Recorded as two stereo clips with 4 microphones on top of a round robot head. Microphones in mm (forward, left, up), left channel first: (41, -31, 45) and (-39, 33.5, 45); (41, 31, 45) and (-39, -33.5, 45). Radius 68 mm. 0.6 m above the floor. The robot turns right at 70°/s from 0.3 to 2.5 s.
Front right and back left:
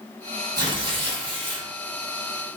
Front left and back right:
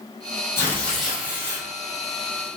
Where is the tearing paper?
100° left, 1.4 m; by 1.7 s 175° left, 1.4 m.